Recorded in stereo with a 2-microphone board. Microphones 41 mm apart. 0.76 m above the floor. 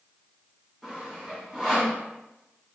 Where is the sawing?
10° right (ahead or behind), 2.0 m.